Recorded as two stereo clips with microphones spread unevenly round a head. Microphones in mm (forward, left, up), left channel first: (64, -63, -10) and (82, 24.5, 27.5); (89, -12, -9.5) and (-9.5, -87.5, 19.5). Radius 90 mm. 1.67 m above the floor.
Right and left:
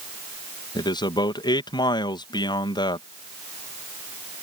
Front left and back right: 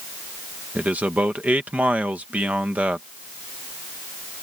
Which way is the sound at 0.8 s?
65° right.